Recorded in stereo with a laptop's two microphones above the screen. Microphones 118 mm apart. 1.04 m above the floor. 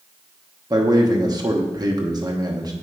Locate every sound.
0.7 s a man speaking: 35° right (ahead or behind), 1.1 m